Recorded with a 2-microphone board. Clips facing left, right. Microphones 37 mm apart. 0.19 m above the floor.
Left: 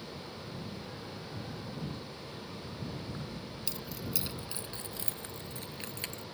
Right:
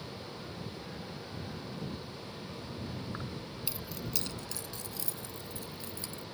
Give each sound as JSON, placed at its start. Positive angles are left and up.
{"t": 3.1, "sound": "keys jangling", "side_deg": -35}